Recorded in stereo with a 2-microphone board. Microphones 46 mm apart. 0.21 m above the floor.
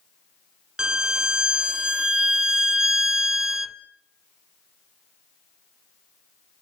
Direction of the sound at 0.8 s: 15° right (ahead or behind).